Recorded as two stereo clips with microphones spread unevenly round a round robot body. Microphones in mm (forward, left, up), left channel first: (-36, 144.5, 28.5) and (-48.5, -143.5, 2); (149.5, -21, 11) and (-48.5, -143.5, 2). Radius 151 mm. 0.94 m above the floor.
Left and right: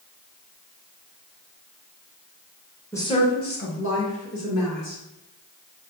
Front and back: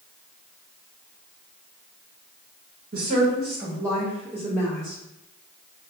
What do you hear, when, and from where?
2.9 s a woman speaking: 170° left, 1.1 m; by 5.0 s 115° left, 2.5 m